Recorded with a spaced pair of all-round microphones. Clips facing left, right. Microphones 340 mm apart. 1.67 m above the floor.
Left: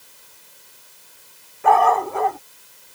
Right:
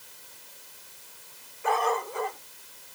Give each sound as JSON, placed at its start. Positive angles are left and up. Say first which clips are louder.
{"t": 1.6, "sound": "a dog barking", "louder": "left 9 dB", "side_deg": 70}